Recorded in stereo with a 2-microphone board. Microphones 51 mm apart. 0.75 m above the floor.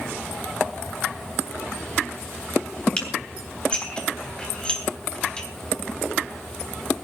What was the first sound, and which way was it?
Dishes clattering, 20° left (ahead or behind).